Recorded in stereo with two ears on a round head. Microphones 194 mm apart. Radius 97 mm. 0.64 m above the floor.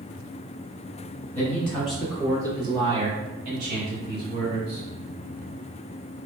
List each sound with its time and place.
1.4 s a man speaking: 10° left (ahead or behind), 1.4 m; by 4.8 s 50° right (ahead or behind), 2 m